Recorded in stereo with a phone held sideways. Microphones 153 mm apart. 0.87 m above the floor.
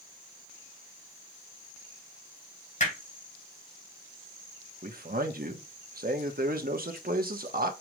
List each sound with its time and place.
2.8 s hammering: 55° left (ahead or behind), 3.5 m
4.8 s a man speaking: 75° right (ahead or behind), 1.1 m